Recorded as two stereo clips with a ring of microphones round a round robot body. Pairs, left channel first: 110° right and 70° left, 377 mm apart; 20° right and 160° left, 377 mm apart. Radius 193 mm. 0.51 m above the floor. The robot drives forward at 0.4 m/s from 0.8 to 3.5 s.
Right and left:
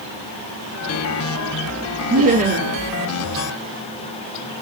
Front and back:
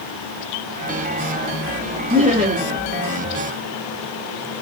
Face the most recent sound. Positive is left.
turn(degrees=140)